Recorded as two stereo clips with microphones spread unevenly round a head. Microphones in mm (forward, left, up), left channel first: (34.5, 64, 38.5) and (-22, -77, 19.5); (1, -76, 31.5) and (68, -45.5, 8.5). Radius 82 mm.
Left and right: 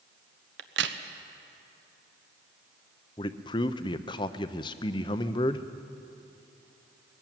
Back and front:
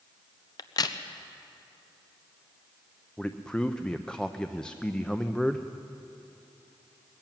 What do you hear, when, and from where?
0.6 s a crack: 135° right, 1.0 m
3.2 s a man speaking: 125° left, 0.7 m